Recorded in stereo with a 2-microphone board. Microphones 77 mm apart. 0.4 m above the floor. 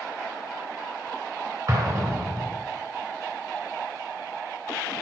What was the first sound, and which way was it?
An explosion, 50° right (ahead or behind).